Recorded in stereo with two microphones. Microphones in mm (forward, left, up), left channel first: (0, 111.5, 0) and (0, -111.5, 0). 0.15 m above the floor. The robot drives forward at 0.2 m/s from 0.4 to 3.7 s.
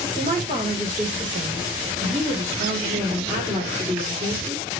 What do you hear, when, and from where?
0.1 s a woman speaking: 40° right (ahead or behind), 2.0 m; by 4.7 s 30° right (ahead or behind), 2.5 m